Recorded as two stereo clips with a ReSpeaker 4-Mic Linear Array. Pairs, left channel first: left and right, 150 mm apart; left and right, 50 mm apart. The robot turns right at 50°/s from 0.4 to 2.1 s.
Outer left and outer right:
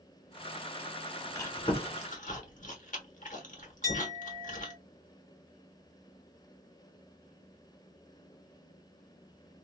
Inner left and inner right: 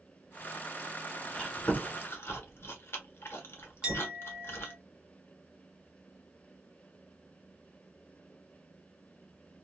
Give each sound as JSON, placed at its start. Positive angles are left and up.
{"t": 1.4, "sound": "chewing", "side_deg": 20, "distance_m": 1.1}
{"t": 3.8, "sound": "a clink", "side_deg": -25, "distance_m": 1.9}